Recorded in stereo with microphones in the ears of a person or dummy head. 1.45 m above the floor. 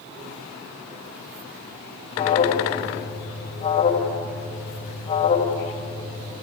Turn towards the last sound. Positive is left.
turn(degrees=35)  # may be behind; listen again after turning